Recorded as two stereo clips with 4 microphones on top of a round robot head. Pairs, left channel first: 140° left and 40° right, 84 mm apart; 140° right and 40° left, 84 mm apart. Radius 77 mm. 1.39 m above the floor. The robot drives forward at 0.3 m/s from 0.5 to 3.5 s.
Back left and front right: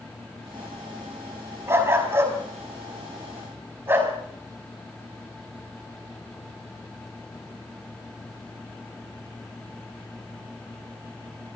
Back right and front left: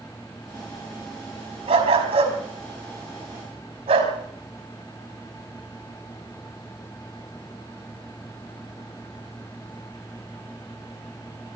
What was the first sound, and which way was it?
A dog barking, 20° left.